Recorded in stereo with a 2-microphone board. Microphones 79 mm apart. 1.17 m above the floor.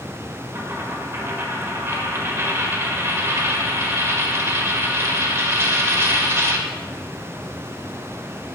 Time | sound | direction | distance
0.5 | a dropped coin | 35° right (ahead or behind) | 1.3 m